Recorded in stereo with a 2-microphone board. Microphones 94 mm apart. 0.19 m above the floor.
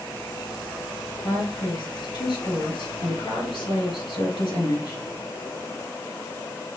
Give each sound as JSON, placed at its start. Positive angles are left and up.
{"t": 1.2, "sound": "a woman speaking", "side_deg": 65, "distance_m": 2.5}